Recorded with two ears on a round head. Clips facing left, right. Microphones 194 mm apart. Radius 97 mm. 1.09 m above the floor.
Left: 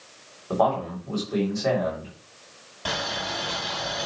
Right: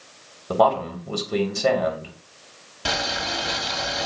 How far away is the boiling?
About 4 m.